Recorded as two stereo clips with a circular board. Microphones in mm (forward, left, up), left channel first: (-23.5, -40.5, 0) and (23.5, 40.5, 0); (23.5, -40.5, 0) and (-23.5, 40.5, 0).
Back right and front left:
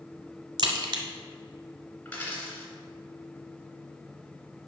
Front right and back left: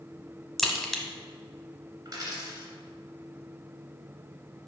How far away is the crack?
About 1.1 m.